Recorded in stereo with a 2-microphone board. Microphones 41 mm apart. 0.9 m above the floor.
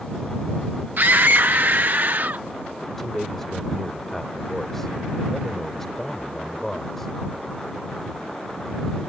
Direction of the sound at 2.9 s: 10° left (ahead or behind).